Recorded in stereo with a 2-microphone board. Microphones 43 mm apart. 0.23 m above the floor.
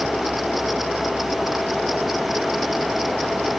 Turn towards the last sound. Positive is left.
No sound to turn to.